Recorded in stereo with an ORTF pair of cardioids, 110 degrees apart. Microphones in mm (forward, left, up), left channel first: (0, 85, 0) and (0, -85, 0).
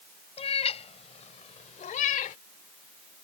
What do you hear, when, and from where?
0.4 s a cat meowing: 35° left; by 2.4 s 55° left